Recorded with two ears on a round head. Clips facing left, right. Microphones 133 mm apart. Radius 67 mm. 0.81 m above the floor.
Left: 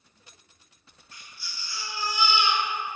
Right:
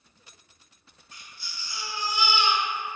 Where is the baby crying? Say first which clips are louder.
Even; 15° right (ahead or behind), 1.0 m.